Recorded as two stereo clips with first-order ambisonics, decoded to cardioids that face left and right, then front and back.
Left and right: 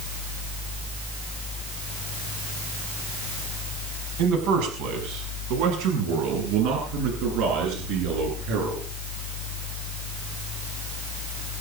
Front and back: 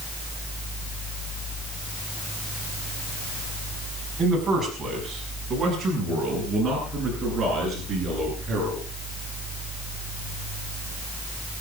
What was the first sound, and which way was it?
A man speaking, 95° right.